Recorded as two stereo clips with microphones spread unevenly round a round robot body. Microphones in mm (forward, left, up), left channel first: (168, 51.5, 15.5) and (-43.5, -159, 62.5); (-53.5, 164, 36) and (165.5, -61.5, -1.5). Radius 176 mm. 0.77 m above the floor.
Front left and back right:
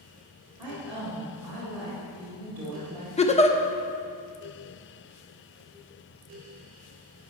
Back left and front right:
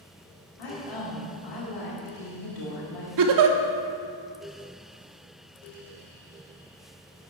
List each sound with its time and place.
0.6 s a woman speaking: 140° left, 2.5 m
3.2 s a giggle: 25° right, 0.9 m